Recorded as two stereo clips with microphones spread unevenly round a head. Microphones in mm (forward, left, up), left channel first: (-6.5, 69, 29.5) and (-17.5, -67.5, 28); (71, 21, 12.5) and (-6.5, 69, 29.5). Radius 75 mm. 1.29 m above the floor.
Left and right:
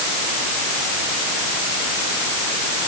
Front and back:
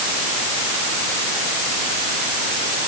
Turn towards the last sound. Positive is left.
No sound to turn to.